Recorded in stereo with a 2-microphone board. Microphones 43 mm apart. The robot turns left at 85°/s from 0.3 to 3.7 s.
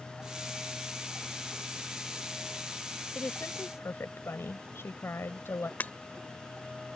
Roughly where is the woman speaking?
Behind left.